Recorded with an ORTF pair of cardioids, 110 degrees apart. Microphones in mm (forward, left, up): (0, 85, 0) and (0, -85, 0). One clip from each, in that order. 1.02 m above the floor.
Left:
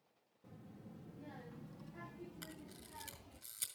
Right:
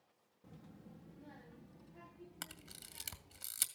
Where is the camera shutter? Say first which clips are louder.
Right 2 dB; 70° right, 2.5 m.